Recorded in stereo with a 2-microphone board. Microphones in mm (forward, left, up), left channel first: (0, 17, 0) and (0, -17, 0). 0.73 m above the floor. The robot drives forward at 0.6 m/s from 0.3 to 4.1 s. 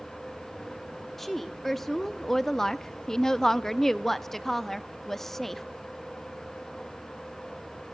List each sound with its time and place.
1.2 s a woman speaking: 5° left (ahead or behind), 1.3 m